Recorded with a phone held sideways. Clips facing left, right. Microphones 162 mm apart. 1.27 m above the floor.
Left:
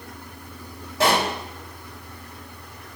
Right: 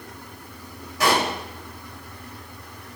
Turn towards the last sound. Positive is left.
turn(degrees=30)  # may be behind; listen again after turning